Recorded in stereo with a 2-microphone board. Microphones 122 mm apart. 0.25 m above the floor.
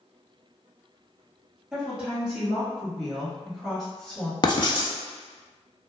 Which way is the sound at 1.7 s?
10° right (ahead or behind).